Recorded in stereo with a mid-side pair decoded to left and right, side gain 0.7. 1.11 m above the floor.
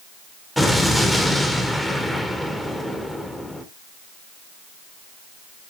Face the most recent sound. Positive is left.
turn(degrees=5)